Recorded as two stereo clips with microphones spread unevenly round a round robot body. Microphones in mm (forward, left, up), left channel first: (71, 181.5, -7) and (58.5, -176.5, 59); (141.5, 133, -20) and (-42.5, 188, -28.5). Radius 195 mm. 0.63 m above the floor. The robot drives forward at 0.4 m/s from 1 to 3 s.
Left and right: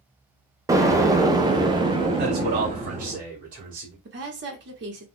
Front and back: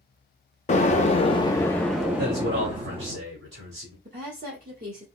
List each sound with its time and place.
0.7 s an explosion: straight ahead, 0.7 m; by 3.2 s straight behind, 0.7 m
2.2 s a man speaking: 160° right, 1.4 m; by 4.0 s 165° right, 1.7 m
4.0 s a woman speaking: 155° right, 0.9 m